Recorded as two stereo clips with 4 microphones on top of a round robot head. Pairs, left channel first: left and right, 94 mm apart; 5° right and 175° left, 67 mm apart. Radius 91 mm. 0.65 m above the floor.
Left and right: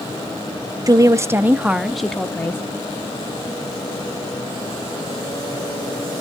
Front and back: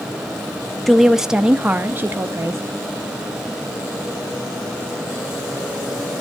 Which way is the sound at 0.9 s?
90° right.